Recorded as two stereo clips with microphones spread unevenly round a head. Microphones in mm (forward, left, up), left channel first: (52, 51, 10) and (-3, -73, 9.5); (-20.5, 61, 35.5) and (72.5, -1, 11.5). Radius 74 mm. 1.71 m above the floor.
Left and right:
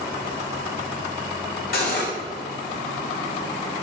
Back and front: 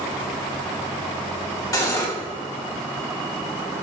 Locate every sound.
1.7 s cutlery clinking: 95° left, 3 m